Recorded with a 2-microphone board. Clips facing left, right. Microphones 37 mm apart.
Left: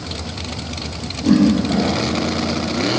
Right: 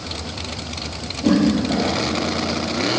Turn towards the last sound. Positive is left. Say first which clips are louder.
# left 2 dB
turn(degrees=-35)  # may be behind; listen again after turning